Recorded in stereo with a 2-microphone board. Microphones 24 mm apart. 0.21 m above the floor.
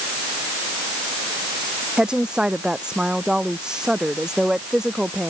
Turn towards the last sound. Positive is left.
turn(degrees=-25)  # may be behind; listen again after turning